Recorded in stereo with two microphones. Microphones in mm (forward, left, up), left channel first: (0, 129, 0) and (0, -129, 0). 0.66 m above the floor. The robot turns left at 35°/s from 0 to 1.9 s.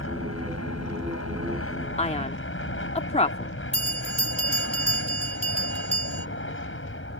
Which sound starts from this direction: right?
A bell, at 3.7 s.